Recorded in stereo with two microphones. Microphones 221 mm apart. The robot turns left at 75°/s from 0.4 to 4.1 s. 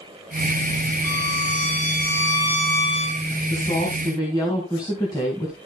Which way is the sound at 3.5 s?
65° left.